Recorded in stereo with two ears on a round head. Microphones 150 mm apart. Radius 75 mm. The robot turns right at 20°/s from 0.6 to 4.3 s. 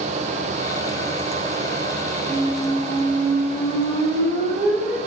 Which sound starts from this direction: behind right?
A squeak, at 2.2 s.